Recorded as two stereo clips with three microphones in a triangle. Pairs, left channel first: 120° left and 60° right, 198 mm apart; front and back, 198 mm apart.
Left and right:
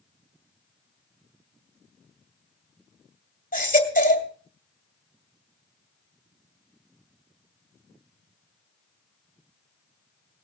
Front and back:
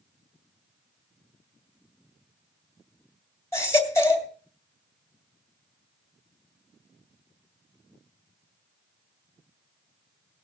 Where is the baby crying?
75° left, 2 m.